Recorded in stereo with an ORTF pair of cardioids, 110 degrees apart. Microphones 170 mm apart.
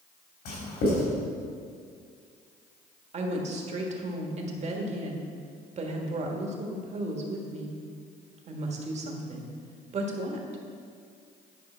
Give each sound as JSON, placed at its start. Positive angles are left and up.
{"t": 0.5, "sound": "writing", "azimuth_deg": 70, "distance_m": 3.5}
{"t": 3.1, "sound": "a woman speaking", "azimuth_deg": -40, "distance_m": 1.6}